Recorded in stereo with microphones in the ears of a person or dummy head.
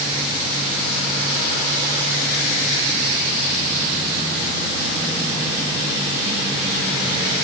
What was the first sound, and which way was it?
Only background noise.